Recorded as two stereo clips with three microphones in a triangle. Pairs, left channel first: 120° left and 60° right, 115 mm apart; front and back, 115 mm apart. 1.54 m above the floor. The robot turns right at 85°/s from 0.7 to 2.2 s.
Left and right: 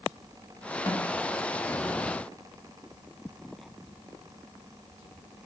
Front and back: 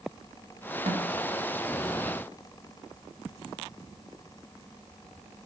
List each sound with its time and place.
0.9 s a snare drum: 175° left, 1.6 m; by 1.1 s 165° right, 1.6 m